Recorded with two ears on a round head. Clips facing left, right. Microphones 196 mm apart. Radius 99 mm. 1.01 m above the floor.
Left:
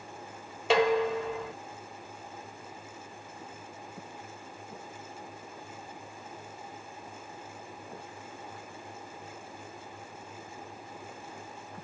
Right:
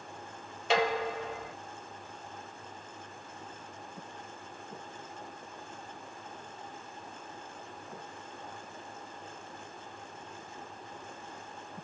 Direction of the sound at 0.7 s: 65° left (ahead or behind).